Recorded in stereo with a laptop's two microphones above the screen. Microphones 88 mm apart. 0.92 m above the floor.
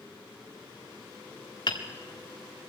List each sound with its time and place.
1.7 s hammering: 50° left (ahead or behind), 1.7 m